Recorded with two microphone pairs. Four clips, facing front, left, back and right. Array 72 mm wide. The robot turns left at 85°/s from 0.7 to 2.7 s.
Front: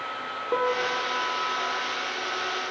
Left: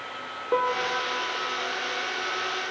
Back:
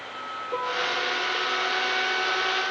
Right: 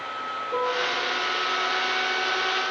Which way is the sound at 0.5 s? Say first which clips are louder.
Left 2 dB, front 3 dB; 55° left.